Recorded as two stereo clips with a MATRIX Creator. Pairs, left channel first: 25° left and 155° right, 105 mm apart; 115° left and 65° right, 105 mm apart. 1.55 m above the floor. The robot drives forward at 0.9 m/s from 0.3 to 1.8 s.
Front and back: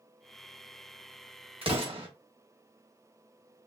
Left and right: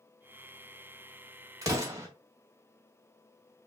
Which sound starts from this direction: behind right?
An explosion, at 1.6 s.